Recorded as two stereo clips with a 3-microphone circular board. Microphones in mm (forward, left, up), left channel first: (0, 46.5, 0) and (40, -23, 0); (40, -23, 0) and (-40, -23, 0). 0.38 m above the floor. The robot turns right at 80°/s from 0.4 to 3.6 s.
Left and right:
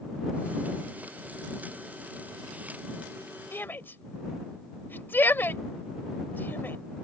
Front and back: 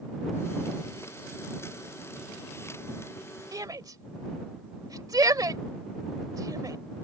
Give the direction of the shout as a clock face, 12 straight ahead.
6 o'clock.